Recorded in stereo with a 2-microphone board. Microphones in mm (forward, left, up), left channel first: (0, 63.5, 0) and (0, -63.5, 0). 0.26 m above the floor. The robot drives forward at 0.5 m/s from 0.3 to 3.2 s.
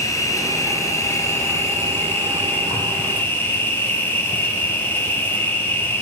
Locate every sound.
0.0 s an insect: 25° left (ahead or behind), 3 m; by 6.0 s 15° left (ahead or behind), 4 m